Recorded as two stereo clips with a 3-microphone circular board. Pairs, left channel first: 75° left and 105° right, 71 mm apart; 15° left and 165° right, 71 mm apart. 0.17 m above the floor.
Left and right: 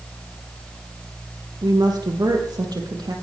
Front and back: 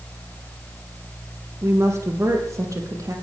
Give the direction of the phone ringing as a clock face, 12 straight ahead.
No phone ringing in this recording.